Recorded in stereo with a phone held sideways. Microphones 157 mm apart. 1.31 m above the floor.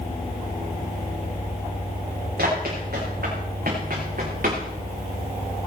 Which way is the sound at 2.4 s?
80° right.